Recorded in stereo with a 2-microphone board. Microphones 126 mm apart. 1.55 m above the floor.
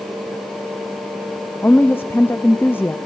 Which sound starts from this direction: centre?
A woman speaking, at 1.6 s.